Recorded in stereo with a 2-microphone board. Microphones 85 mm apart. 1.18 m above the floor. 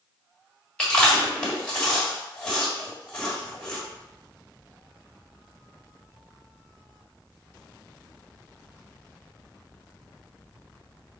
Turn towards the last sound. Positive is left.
turn(degrees=10)  # may be behind; listen again after turning